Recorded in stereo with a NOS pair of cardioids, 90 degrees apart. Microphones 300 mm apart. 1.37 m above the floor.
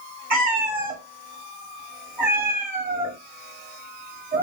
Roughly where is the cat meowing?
Ahead right.